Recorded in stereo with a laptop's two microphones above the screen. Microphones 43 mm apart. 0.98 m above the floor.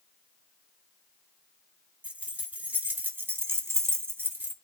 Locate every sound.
2.0 s keys jangling: 35° right (ahead or behind), 1.6 m; by 4.5 s 40° right (ahead or behind), 0.8 m